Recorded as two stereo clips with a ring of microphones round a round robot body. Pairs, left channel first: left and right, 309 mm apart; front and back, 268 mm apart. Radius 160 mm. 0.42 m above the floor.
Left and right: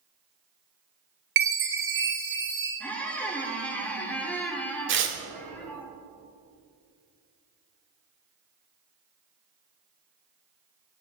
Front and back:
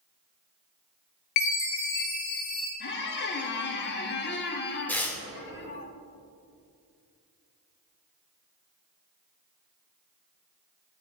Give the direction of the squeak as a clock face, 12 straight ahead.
12 o'clock.